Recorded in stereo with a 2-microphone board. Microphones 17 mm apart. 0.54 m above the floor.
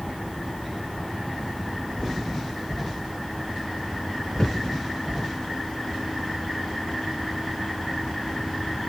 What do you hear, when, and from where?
4.4 s a thud: 30° left (ahead or behind), 2 m